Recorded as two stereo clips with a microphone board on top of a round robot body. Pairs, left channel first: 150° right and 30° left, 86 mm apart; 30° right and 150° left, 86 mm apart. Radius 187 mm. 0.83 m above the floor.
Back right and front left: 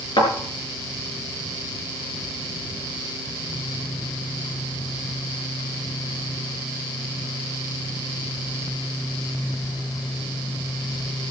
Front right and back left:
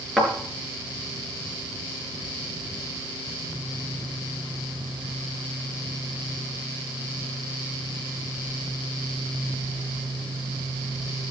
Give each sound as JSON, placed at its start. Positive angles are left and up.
{"t": 0.2, "sound": "a thud", "azimuth_deg": -120, "distance_m": 4.5}